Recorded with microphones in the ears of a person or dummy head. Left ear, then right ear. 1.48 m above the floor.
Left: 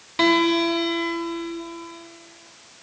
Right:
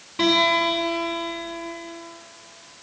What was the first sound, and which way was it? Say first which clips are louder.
A guitar: even; 35° left (ahead or behind).